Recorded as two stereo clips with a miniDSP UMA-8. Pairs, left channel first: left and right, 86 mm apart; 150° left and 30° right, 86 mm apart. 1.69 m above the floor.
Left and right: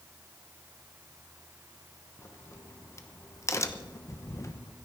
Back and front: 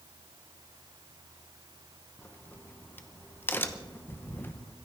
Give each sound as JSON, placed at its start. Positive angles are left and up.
{"t": 2.2, "sound": "a crack", "azimuth_deg": 100, "distance_m": 0.8}